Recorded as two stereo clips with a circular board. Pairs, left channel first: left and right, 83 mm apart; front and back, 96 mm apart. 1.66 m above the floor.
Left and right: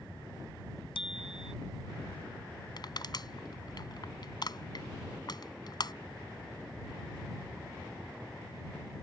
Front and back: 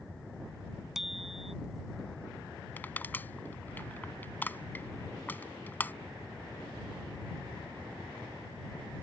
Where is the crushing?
70° left.